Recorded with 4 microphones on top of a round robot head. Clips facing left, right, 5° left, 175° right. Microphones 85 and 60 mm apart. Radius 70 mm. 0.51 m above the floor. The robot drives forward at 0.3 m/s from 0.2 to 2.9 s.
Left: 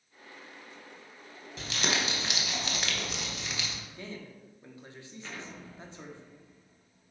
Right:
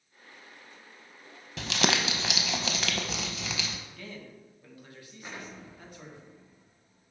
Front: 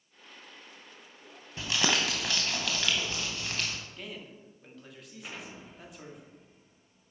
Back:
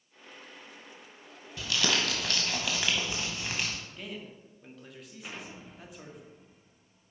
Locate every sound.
1.6 s crumpling: 65° right, 0.8 m; by 3.8 s 95° right, 0.8 m
3.9 s a man speaking: 95° left, 1.4 m
5.2 s an explosion: 85° right, 1.3 m